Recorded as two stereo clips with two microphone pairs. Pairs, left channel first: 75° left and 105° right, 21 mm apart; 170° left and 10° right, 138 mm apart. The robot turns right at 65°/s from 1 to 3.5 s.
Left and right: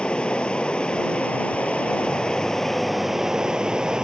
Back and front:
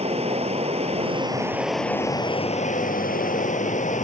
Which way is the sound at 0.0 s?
35° left.